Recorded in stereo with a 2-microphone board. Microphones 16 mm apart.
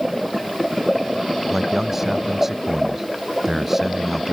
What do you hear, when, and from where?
1.5 s a man speaking: 20° right (ahead or behind)